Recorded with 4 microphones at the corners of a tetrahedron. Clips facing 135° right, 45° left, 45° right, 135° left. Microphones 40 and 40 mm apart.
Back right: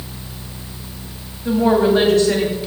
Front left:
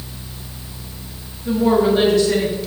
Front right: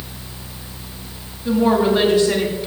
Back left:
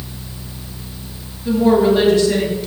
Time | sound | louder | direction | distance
1.4 | a woman speaking | back right 1 dB, back left 3 dB | 130° right | 2.5 m